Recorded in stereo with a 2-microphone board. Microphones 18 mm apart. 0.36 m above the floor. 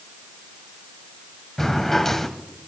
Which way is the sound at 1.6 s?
15° left (ahead or behind).